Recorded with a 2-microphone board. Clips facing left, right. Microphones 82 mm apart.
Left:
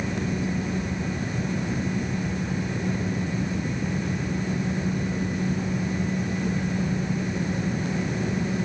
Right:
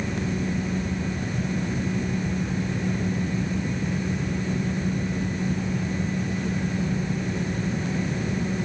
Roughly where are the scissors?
No scissors in this recording.